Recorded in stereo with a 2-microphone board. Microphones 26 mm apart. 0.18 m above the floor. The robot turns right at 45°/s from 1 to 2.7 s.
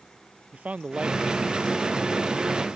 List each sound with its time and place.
0.5 s a man speaking: 70° right; by 2.7 s 5° left